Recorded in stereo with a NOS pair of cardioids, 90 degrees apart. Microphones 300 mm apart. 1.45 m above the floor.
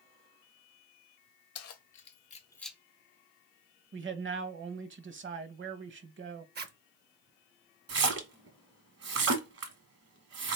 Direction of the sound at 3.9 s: 45° right.